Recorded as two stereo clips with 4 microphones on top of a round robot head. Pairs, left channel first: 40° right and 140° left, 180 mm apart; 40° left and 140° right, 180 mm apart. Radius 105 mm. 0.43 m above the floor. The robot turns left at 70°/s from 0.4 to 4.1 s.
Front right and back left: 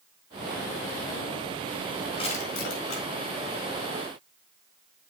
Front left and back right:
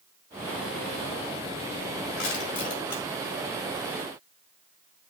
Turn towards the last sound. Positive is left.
turn(degrees=-110)